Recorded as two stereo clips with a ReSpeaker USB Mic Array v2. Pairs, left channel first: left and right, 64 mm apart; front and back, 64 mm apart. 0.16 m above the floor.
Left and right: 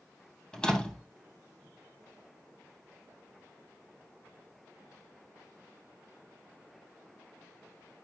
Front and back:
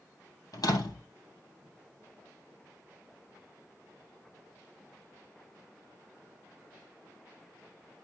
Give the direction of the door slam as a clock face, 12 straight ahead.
12 o'clock.